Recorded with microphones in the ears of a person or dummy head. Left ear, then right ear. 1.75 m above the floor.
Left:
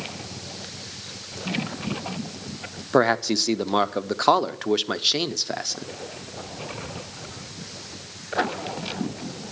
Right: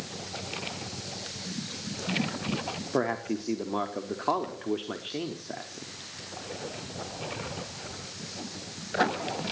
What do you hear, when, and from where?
2.9 s a man speaking: 65° left (ahead or behind), 0.8 m